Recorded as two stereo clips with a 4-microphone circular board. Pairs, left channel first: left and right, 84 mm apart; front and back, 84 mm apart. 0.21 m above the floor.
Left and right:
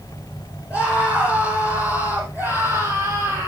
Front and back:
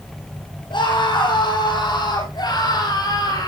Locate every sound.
0.7 s a scream: 10° right, 7 m; by 3.5 s 35° right, 7.5 m